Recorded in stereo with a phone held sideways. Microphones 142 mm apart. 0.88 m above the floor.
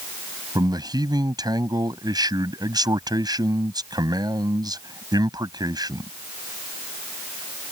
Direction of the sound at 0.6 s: 30° right (ahead or behind).